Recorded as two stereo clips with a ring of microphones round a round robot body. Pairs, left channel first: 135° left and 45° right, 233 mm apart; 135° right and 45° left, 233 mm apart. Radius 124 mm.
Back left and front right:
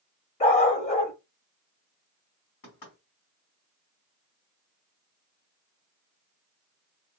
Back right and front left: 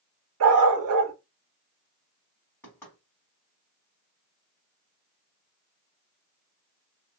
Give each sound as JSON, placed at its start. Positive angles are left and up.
{"t": 0.4, "sound": "a dog barking", "azimuth_deg": 70, "distance_m": 1.1}
{"t": 2.6, "sound": "knocking", "azimuth_deg": 145, "distance_m": 2.5}